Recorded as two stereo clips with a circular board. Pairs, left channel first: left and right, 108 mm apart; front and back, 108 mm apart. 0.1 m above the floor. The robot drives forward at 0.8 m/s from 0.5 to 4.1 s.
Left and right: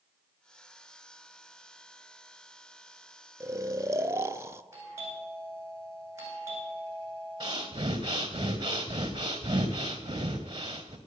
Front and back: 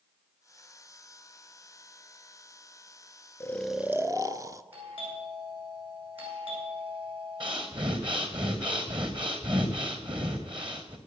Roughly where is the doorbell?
Behind right.